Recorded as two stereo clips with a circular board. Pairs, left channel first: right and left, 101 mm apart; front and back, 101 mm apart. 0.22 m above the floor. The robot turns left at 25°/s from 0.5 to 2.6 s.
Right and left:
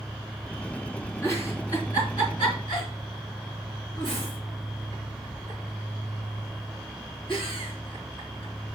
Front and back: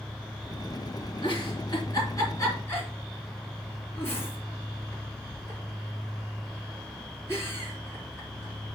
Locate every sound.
1.2 s a giggle: 30° right, 3.5 m; by 8.8 s 65° right, 3.5 m